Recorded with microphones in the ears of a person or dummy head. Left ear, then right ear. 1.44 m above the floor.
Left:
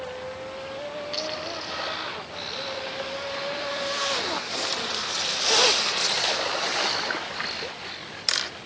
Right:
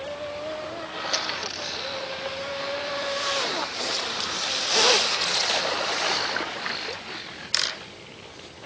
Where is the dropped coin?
40° right (ahead or behind), 6 m.